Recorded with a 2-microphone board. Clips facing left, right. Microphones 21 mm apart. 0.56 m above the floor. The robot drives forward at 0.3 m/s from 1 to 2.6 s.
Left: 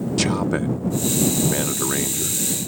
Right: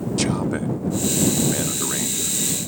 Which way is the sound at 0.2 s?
15° left (ahead or behind).